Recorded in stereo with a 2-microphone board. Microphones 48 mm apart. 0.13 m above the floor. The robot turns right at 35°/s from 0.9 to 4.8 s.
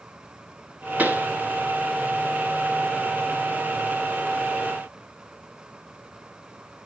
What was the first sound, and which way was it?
A pop, 30° right (ahead or behind).